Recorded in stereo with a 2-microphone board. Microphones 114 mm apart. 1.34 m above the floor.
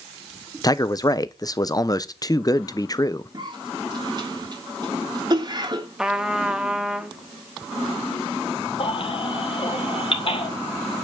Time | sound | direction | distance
0.6 | a man speaking | 35° left (ahead or behind) | 0.8 m
3.3 | a cough | 40° right (ahead or behind) | 3.5 m
6.0 | a trumpet | 5° right (ahead or behind) | 1.1 m
8.8 | a baby crying | 55° left (ahead or behind) | 2.5 m